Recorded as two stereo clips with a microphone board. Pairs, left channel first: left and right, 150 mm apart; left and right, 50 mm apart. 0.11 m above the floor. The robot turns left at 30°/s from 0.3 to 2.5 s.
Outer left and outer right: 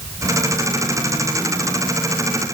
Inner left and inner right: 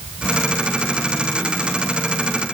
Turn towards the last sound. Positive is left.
No sound to turn to.